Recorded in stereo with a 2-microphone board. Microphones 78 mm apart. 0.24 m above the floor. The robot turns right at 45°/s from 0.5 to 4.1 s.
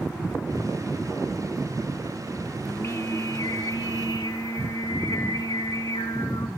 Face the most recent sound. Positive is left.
turn(degrees=95)